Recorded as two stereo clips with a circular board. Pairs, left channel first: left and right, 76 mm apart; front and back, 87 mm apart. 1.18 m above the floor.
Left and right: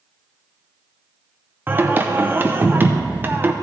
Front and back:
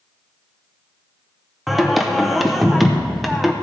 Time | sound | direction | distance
1.7 | singing | 90° right | 0.6 m